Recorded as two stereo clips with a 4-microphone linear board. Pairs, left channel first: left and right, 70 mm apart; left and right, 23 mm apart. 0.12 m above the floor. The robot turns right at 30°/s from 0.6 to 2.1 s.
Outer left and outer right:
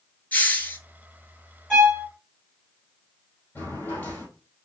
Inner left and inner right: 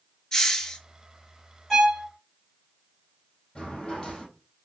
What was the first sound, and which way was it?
A hiss, 25° left (ahead or behind).